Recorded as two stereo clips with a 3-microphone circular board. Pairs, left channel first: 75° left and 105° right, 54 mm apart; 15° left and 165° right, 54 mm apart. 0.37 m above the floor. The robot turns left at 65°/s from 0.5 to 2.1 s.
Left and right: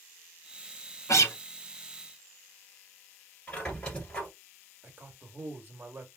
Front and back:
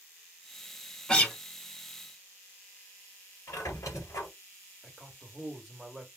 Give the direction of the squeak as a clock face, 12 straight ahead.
12 o'clock.